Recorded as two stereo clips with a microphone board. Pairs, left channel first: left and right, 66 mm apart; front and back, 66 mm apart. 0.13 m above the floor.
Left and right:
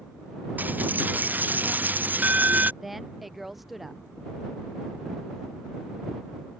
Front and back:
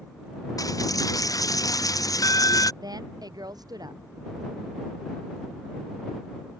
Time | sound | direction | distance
0.6 | a dropped coin | 25° right | ?
2.8 | a woman speaking | 175° right | ?